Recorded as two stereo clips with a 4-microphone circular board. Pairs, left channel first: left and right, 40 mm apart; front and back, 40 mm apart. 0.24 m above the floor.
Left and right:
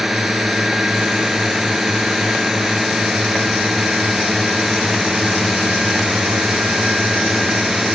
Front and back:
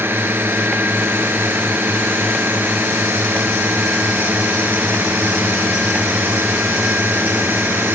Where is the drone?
Straight behind.